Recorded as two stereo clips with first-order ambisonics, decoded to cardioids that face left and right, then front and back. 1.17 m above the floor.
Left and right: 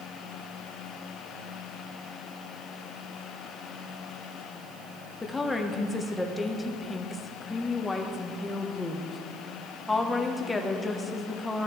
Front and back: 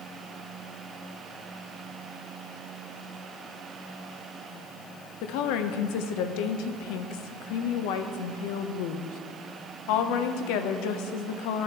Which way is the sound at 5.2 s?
5° left.